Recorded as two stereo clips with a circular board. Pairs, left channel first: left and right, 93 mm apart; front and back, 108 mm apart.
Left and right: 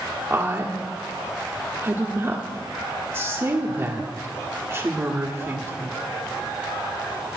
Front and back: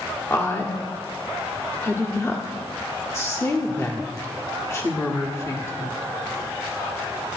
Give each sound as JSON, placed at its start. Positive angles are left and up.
{"t": 0.3, "sound": "a woman speaking", "azimuth_deg": -45, "distance_m": 1.5}